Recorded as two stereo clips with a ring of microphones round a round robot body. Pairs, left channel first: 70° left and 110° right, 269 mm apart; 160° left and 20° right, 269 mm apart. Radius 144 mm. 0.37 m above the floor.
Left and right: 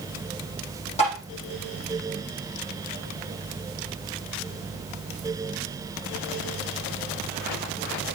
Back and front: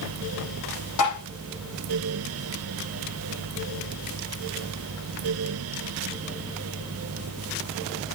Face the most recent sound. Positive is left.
turn(degrees=135)